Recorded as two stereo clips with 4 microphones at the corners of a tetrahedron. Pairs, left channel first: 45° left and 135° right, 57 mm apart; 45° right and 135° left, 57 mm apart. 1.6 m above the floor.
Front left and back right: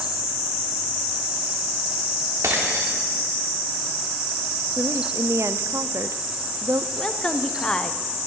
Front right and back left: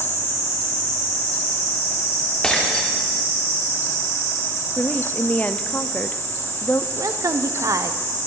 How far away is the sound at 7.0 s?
About 0.8 m.